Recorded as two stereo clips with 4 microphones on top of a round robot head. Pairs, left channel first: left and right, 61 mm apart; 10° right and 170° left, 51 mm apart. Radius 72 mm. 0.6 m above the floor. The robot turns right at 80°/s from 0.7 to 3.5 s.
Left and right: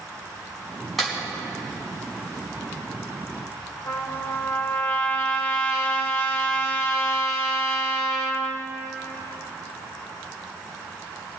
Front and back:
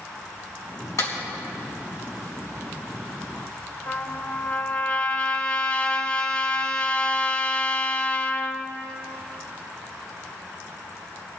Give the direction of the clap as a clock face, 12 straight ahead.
12 o'clock.